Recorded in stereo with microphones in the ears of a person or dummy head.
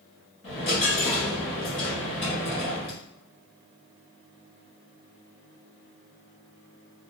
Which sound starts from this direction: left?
A dropped coin, at 0.4 s.